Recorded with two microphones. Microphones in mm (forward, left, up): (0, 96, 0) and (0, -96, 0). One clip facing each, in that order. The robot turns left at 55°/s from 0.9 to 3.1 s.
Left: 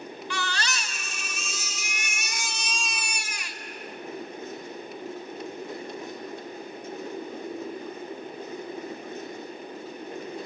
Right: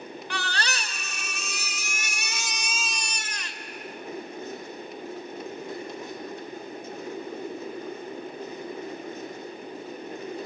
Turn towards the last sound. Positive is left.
turn(degrees=170)